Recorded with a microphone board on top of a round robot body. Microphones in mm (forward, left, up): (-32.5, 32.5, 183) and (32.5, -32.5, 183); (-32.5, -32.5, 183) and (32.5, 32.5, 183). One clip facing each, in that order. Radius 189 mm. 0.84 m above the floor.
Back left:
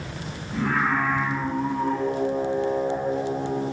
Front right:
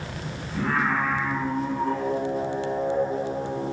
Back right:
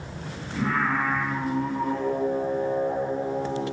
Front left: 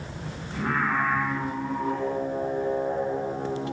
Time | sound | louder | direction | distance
0.5 | singing | back left 1 dB, back right 1 dB | 140° right | 1.1 m